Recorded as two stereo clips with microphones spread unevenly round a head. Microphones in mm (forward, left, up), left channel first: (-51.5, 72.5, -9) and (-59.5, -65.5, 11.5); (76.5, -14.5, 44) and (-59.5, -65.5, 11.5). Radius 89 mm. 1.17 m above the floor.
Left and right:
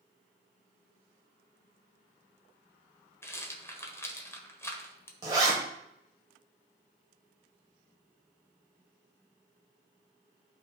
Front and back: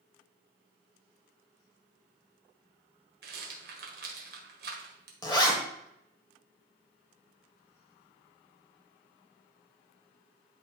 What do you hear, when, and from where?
3.2 s a rattle: 160° left, 1.5 m
5.2 s a zipper: 35° right, 1.8 m